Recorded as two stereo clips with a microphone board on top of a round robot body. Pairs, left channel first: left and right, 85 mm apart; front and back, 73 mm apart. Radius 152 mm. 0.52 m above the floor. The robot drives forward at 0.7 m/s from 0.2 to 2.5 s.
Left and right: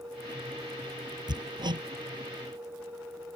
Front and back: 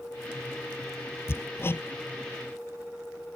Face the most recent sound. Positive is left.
turn(degrees=-60)